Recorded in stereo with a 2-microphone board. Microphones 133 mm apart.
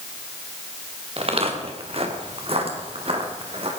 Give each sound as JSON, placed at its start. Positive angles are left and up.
{"t": 1.2, "sound": "footsteps", "side_deg": -50, "distance_m": 3.0}